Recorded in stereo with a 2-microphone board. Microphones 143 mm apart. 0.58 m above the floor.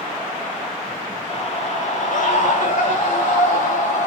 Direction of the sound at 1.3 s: 45° left (ahead or behind).